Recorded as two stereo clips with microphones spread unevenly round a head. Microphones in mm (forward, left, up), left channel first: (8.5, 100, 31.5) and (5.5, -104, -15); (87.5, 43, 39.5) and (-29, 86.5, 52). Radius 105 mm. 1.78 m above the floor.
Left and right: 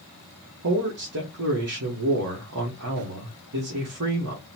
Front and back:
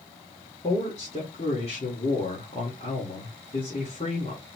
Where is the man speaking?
80° right, 1.4 m.